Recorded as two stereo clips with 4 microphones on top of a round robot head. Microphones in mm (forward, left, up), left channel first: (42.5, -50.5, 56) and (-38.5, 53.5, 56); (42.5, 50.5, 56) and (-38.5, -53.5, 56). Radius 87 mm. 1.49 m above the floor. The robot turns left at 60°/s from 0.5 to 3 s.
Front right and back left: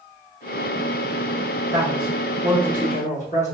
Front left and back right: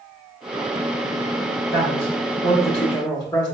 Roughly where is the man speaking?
Ahead left.